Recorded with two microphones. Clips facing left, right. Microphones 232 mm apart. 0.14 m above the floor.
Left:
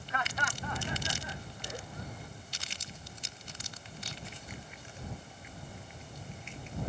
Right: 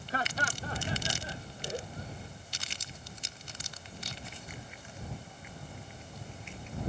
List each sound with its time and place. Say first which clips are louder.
0.1 s laughter: right 3 dB; 35° right (ahead or behind); by 2.3 s 25° right (ahead or behind)